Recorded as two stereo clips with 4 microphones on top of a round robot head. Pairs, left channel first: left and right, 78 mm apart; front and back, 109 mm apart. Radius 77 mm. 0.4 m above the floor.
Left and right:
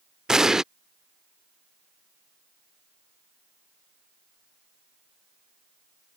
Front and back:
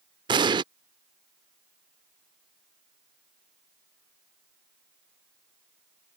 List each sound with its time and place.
0.3 s an explosion: 170° right